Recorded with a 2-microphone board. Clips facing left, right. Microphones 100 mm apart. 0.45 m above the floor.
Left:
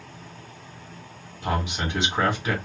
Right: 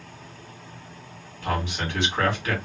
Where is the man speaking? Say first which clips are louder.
Left 1 dB; 15° left (ahead or behind), 2 m.